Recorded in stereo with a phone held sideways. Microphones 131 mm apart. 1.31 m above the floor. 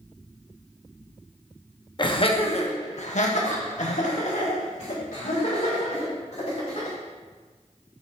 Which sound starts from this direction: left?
Laughter, at 2.0 s.